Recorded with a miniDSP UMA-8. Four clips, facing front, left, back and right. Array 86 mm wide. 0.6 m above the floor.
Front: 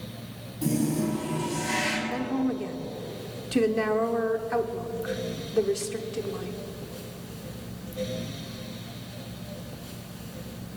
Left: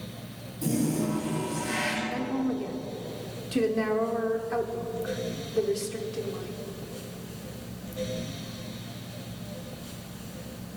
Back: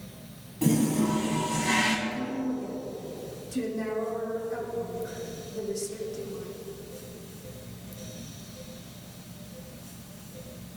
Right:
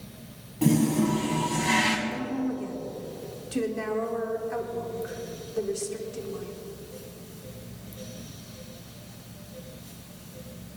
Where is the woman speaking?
15° left, 1.2 m.